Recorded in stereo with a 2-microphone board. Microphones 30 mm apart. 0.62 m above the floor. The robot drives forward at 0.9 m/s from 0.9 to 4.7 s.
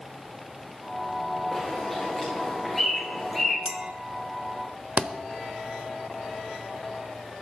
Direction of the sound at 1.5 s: 5° right (ahead or behind).